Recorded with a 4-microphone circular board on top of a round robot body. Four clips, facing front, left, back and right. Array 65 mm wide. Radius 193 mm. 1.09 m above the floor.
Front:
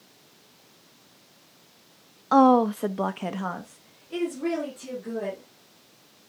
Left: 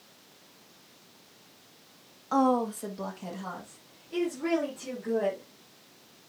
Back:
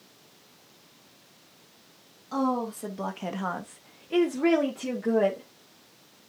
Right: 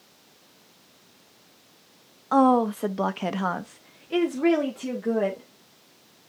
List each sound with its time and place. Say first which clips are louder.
2.3 s a woman speaking: right 6 dB, front 10 dB; 20° right, 1.1 m; by 5.5 s 140° right, 2.5 m